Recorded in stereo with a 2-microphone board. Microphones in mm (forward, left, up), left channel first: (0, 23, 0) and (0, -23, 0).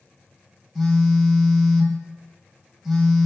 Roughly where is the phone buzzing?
Centre.